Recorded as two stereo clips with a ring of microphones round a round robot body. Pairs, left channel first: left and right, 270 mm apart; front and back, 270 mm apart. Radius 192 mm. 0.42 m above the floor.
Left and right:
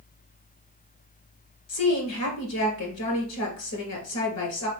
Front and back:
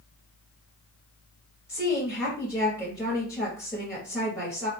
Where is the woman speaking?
95° left, 1.9 m.